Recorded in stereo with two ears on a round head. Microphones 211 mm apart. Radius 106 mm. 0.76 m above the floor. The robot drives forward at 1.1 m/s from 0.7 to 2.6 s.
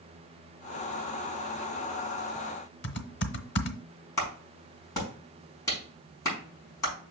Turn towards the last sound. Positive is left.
turn(degrees=15)  # may be behind; listen again after turning